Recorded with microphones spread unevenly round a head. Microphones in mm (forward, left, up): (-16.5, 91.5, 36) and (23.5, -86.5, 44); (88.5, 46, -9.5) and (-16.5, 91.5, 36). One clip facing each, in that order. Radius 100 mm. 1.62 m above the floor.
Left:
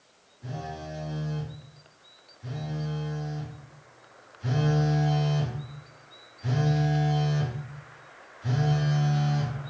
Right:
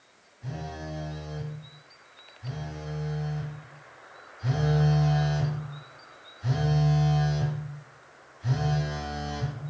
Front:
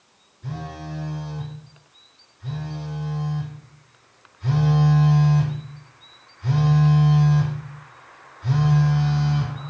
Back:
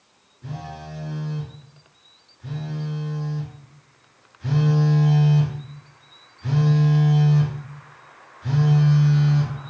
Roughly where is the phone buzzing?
Behind right.